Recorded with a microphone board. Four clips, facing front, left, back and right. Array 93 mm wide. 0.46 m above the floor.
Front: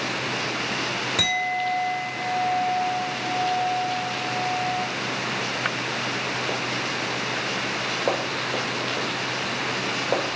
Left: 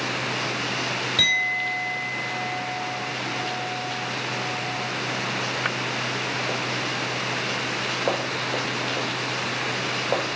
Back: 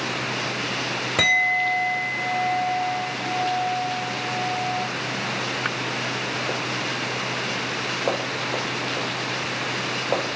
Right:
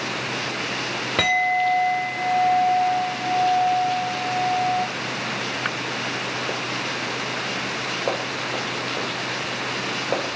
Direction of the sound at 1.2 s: 125° right.